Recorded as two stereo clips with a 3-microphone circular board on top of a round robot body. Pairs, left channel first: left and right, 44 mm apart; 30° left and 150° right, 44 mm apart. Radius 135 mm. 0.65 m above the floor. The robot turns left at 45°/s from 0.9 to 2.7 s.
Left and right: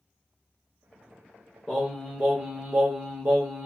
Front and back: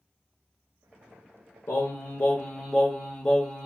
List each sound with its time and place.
1.7 s singing: straight ahead, 0.5 m; by 3.6 s 45° right, 0.5 m